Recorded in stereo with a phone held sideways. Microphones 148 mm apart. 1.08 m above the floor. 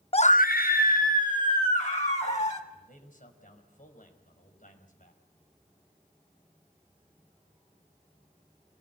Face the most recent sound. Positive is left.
turn(degrees=65)  # may be behind; listen again after turning